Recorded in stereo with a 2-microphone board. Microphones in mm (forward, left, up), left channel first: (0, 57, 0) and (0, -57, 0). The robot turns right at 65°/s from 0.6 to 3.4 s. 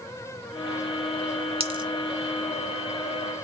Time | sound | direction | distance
1.6 | a dropped coin | 55° right (ahead or behind) | 1.3 m